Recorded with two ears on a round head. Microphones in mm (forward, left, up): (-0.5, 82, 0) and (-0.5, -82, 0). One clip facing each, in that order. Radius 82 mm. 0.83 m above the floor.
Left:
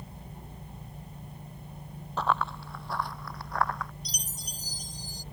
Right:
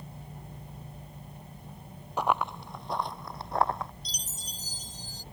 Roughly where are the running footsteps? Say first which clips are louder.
Right 1 dB; centre.